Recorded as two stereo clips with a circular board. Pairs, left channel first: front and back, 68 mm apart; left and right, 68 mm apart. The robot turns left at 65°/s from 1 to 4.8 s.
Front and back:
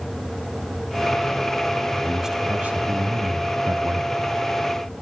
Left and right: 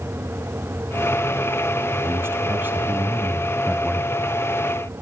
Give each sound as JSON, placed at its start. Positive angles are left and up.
{"t": 2.0, "sound": "a man speaking", "azimuth_deg": -90, "distance_m": 1.1}